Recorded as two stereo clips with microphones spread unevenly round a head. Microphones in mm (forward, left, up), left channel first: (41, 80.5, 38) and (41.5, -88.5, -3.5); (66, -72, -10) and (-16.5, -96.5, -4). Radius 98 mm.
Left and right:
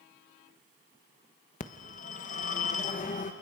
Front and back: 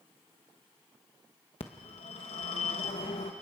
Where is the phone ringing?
50° left, 1.0 m.